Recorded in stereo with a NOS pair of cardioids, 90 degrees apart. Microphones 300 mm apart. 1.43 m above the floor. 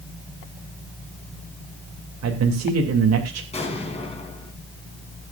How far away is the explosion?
About 4.5 m.